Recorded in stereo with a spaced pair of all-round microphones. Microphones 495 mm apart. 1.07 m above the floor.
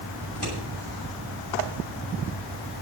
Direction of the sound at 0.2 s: 55° left (ahead or behind).